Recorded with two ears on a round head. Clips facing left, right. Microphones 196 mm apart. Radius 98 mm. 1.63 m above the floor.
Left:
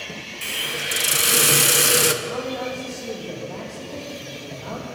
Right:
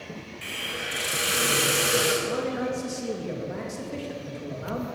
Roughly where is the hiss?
Left.